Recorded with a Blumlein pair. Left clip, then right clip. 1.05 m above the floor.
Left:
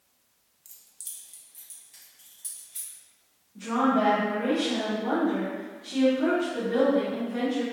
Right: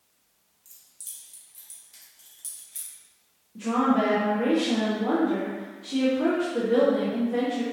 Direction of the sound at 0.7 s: 20° left.